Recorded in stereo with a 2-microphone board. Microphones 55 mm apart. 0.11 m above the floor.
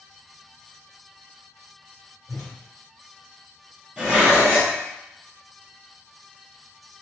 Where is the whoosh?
30° left (ahead or behind), 1.5 m.